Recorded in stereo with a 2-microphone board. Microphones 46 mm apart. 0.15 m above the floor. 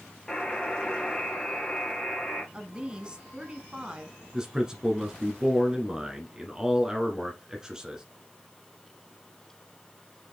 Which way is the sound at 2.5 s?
20° right (ahead or behind).